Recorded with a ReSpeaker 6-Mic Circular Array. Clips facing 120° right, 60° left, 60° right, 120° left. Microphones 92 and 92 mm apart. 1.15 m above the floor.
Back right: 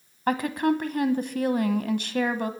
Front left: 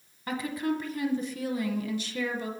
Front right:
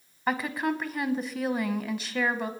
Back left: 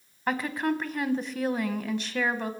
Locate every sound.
0.3 s a woman speaking: 150° right, 0.8 m